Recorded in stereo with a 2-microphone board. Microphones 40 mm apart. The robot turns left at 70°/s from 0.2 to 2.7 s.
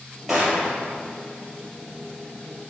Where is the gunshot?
10° right, 3 m; by 0.7 s 40° right, 3 m.